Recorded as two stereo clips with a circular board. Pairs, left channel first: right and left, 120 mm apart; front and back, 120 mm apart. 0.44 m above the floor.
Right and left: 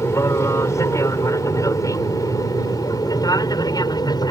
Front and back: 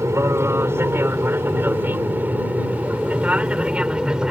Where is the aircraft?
135° right; by 4.3 s 100° right.